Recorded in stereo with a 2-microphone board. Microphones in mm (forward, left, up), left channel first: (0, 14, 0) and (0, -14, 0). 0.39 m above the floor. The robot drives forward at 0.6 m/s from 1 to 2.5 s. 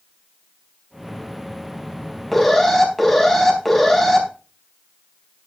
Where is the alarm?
5° left (ahead or behind), 4.5 m.